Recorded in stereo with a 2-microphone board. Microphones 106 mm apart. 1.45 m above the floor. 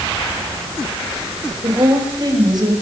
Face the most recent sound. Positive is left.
turn(degrees=-40)  # may be behind; listen again after turning